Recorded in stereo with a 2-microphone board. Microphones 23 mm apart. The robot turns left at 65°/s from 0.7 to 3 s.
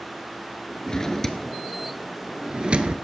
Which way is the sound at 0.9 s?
30° left (ahead or behind).